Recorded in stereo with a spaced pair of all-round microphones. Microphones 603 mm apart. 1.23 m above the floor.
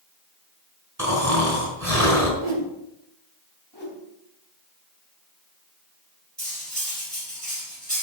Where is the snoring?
30° right (ahead or behind), 5 m.